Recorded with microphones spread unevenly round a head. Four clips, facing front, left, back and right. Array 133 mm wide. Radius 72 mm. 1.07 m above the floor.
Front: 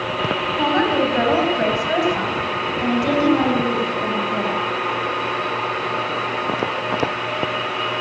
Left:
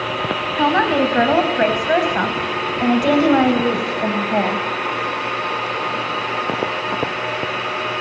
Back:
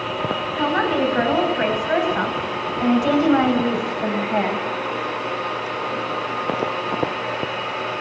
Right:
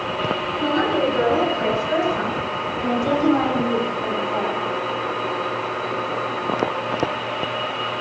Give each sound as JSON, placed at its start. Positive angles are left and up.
{"t": 0.6, "sound": "a woman speaking", "azimuth_deg": 75, "distance_m": 7.0}